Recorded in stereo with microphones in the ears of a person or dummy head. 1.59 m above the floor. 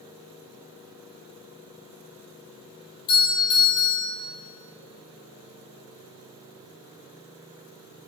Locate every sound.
3.1 s a doorbell: 25° left (ahead or behind), 4.5 m